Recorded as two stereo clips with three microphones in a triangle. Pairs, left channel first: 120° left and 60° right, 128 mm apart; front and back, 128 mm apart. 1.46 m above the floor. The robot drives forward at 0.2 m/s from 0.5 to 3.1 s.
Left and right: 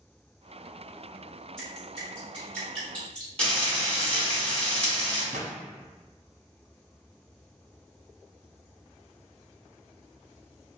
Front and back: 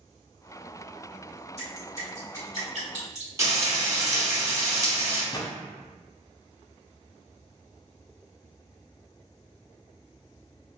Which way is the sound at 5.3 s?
60° right.